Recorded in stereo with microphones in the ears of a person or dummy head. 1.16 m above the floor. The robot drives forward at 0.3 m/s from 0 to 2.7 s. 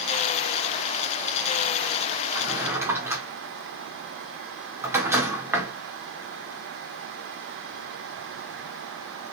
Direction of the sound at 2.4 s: 5° right (ahead or behind).